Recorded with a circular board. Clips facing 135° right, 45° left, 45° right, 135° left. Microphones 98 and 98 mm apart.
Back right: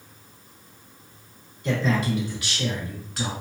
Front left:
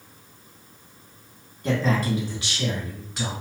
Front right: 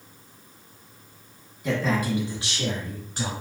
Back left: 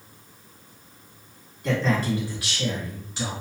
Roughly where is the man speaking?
Ahead left.